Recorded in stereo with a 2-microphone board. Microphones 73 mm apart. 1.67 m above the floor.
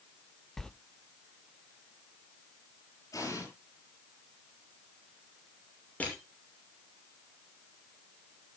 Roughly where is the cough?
No cough in this recording.